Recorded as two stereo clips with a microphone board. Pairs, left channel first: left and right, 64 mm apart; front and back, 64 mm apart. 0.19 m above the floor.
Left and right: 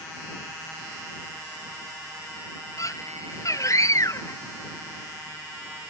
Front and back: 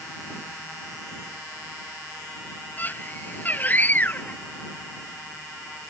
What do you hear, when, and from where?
2.8 s a scream: 60° left